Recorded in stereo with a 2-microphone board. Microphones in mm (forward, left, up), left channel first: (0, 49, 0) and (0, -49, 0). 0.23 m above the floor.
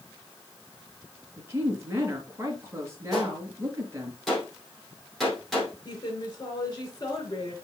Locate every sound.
1.4 s a woman speaking: 25° right (ahead or behind), 3.5 m
3.1 s a gunshot: centre (ahead or behind), 5.5 m
5.8 s a woman speaking: 40° left (ahead or behind), 4 m